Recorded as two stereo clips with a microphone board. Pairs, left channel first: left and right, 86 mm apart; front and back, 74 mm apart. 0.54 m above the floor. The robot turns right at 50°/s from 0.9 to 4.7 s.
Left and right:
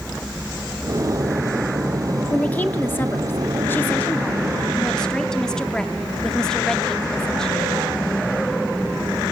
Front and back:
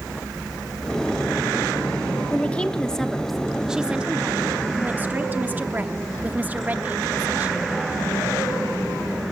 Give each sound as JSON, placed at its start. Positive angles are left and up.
{"t": 2.3, "sound": "a woman speaking", "azimuth_deg": 40, "distance_m": 0.7}